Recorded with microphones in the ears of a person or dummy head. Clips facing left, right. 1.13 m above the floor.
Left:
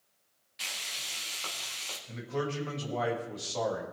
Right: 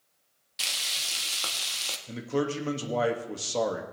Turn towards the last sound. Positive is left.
turn(degrees=-50)  # may be behind; listen again after turning